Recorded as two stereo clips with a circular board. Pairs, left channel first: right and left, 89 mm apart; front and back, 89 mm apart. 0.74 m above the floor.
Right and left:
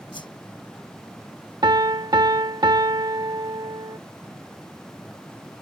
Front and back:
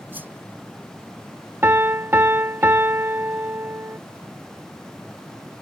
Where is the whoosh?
110° right.